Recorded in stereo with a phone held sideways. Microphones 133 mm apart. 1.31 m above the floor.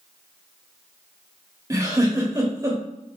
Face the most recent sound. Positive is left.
turn(degrees=-20)  # may be behind; listen again after turning